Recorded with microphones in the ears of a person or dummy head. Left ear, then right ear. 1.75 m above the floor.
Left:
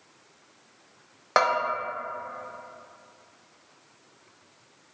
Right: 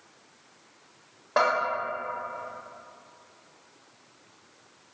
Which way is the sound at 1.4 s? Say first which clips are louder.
Left 1 dB; 75° left (ahead or behind).